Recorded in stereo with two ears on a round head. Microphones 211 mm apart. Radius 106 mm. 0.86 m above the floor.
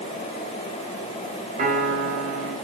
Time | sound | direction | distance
1.6 | a piano | 35° right (ahead or behind) | 3.5 m